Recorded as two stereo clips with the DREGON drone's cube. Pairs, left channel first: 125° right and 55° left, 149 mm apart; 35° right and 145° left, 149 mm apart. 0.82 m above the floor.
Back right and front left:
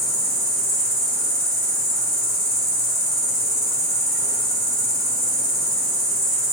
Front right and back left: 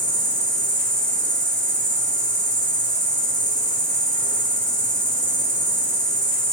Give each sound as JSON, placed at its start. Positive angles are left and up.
{"t": 0.0, "sound": "an insect", "azimuth_deg": -30, "distance_m": 1.5}